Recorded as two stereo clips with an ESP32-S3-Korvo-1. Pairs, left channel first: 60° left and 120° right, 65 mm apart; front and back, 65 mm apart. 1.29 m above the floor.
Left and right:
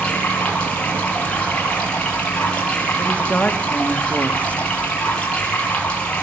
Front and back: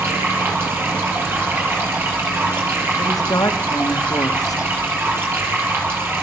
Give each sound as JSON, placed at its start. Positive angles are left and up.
{"t": 0.0, "sound": "running water", "azimuth_deg": 130, "distance_m": 8.5}
{"t": 3.0, "sound": "a woman speaking", "azimuth_deg": -10, "distance_m": 2.5}